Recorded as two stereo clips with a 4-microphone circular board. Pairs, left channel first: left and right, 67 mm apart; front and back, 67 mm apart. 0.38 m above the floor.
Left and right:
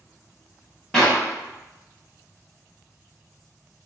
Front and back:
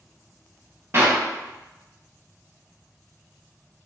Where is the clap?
165° left, 1.0 m.